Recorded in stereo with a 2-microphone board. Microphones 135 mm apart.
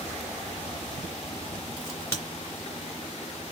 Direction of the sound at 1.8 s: 20° left (ahead or behind).